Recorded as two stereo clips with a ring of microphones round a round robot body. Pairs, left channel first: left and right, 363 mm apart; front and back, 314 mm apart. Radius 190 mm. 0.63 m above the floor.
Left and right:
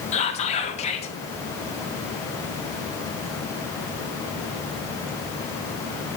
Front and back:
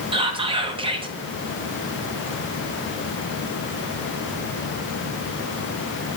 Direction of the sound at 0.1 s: 130° left.